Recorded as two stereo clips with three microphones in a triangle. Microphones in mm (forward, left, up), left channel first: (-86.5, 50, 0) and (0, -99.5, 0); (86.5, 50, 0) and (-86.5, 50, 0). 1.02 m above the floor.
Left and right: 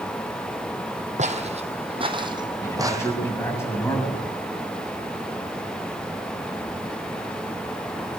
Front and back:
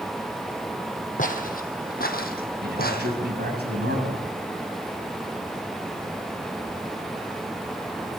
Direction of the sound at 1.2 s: 25° right.